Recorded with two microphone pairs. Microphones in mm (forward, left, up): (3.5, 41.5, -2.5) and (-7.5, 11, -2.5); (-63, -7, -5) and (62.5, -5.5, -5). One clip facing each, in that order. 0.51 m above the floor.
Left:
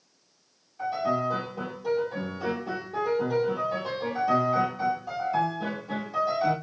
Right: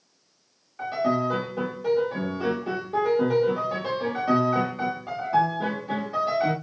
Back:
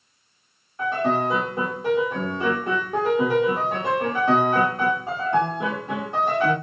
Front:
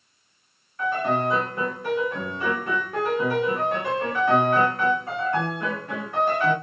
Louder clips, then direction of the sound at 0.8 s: Right 2 dB, back 1 dB; 120° right.